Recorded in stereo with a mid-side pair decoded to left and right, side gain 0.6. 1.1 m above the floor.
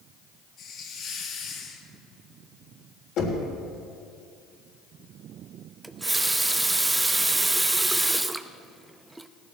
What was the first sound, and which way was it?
A hiss, 55° left.